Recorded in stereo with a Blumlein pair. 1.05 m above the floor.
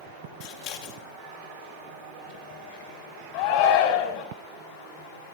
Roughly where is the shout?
Ahead left.